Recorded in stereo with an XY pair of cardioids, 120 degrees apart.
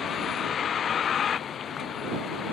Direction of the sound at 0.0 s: 45° left.